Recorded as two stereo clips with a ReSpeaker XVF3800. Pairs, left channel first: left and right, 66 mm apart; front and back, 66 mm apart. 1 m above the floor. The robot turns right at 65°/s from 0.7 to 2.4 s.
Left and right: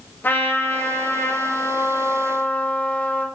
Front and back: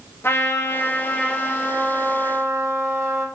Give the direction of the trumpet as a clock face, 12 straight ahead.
11 o'clock.